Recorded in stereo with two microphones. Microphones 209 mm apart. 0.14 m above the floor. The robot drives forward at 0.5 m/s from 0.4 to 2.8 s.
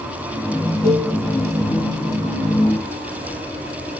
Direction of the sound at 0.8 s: 20° left (ahead or behind).